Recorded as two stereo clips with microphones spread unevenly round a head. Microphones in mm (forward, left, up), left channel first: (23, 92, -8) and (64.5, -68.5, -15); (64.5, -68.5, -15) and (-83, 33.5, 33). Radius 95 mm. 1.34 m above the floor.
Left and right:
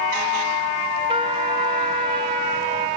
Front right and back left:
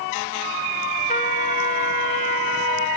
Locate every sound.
1.1 s a trumpet: 70° right, 1.0 m